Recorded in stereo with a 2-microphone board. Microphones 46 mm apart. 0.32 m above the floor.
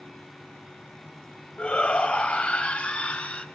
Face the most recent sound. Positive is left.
turn(degrees=25)  # may be behind; listen again after turning